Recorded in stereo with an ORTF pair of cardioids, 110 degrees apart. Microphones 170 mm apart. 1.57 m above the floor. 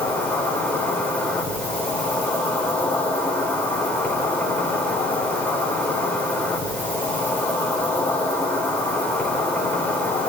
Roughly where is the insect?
Ahead.